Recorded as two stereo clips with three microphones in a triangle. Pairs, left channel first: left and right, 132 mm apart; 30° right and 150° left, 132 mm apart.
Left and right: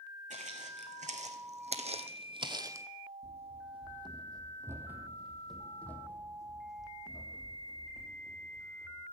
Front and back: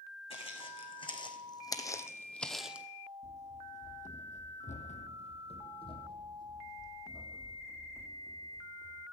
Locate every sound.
0.3 s footsteps: 70° right, 1.7 m; by 2.9 s 140° right, 0.6 m
3.2 s running footsteps: 55° right, 1.6 m; by 9.0 s 45° left, 3 m